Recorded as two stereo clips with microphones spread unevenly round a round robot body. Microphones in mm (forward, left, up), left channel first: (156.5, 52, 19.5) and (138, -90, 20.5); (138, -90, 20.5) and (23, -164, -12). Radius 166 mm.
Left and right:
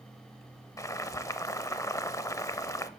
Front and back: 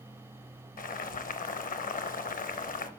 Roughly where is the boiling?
Ahead.